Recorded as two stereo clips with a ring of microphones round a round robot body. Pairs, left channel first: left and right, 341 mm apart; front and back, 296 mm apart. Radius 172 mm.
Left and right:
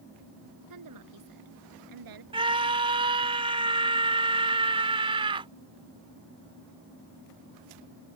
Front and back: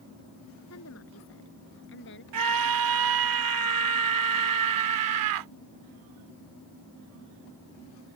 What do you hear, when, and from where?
0.7 s a woman speaking: 50° right; by 2.2 s 60° right
2.3 s a scream: 165° right